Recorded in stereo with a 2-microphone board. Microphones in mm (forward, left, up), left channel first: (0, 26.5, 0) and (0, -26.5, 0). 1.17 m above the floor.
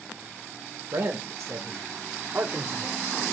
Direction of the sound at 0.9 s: 70° right (ahead or behind).